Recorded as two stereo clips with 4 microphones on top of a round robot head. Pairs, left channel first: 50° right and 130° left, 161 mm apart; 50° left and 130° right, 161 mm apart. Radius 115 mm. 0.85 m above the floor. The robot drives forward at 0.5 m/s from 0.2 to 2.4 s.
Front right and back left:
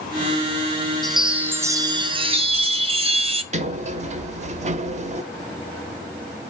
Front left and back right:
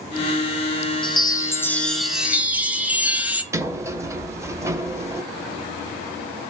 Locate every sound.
1.0 s a chime: 35° left, 0.7 m; by 3.4 s 155° left, 0.8 m
3.5 s a sliding door: 160° left, 0.6 m